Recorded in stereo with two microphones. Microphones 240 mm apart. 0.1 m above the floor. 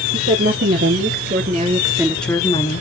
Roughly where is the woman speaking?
Right.